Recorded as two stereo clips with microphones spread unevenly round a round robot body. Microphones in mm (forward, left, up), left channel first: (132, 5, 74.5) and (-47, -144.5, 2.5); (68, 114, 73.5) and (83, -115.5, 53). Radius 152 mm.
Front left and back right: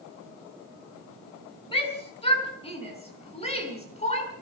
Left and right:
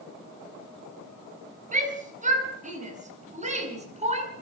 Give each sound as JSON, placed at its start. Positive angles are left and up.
{"t": 1.7, "sound": "a shout", "azimuth_deg": -30, "distance_m": 8.0}